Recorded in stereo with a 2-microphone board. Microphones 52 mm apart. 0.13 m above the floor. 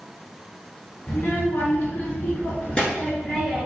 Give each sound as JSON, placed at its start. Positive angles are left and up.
{"t": 1.1, "sound": "a child speaking", "side_deg": 40, "distance_m": 0.9}